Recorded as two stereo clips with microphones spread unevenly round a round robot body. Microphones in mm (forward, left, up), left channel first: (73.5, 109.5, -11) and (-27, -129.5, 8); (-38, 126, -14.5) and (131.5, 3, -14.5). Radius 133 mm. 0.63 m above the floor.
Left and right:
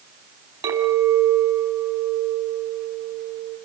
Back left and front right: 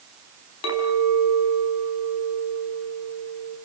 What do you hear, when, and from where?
0.6 s a clink: 170° left, 4.5 m